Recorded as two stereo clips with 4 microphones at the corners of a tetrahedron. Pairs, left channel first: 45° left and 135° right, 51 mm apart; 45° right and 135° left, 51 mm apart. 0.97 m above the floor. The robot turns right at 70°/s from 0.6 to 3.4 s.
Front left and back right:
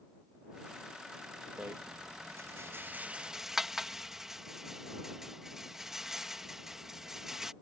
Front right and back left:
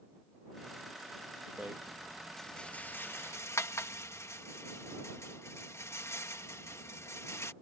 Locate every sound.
1.6 s a rattle: 175° left; by 7.5 s 55° right